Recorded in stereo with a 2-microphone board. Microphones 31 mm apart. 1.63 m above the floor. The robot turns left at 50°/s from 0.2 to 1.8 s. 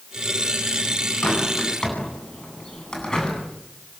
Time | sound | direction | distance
1.2 | a bird | 50° left (ahead or behind) | 9.5 m